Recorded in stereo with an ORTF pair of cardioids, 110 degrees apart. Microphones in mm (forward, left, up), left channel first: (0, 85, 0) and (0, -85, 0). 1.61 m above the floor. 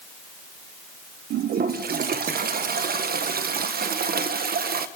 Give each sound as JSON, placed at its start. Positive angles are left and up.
{"t": 1.3, "sound": "a toilet flushing", "azimuth_deg": -65, "distance_m": 1.5}